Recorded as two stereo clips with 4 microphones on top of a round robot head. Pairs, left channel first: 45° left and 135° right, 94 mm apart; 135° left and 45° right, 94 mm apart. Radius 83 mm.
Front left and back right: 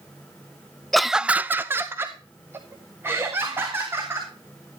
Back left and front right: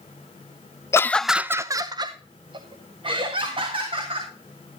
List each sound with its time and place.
0.9 s laughter: 130° left, 0.5 m; by 4.3 s 70° right, 2.5 m